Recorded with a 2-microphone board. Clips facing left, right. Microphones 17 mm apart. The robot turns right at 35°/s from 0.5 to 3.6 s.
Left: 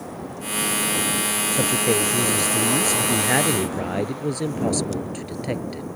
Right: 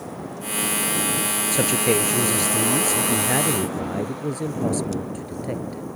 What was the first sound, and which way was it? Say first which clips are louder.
A man speaking: right 1 dB; 40° right.